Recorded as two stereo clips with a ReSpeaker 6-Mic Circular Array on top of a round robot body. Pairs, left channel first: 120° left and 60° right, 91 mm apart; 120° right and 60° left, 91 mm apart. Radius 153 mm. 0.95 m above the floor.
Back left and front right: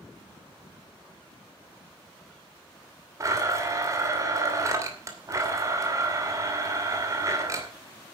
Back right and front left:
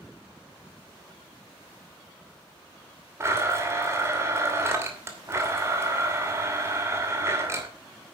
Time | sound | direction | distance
3.2 | a blender | 5° right | 2.5 m